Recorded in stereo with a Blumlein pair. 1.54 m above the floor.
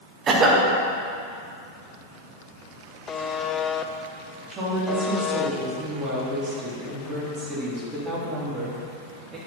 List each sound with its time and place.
0.3 s a cough: 25° right, 1.9 m
3.1 s a buzzer: 20° left, 0.6 m
4.5 s a woman speaking: 25° right, 3.5 m